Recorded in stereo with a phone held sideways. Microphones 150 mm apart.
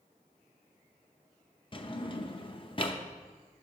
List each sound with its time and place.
1.7 s a drawer: 35° left (ahead or behind), 0.6 m